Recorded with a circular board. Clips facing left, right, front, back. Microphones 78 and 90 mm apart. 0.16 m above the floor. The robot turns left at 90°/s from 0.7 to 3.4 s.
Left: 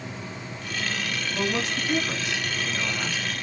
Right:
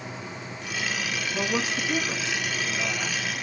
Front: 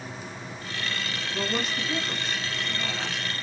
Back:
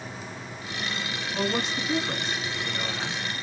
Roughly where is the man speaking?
Behind right.